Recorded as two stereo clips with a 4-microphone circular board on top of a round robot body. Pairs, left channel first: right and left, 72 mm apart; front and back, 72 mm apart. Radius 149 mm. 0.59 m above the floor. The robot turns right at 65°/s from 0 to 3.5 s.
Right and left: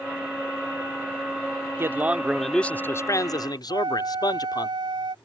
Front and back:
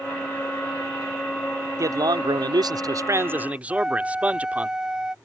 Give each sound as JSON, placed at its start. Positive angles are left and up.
{"t": 1.8, "sound": "a man speaking", "azimuth_deg": 140}
{"t": 3.7, "sound": "a flute", "azimuth_deg": 100}